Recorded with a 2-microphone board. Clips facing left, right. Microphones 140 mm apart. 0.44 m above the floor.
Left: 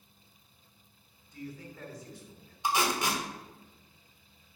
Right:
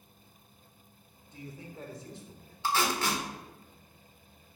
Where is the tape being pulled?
15° left (ahead or behind), 1.3 m.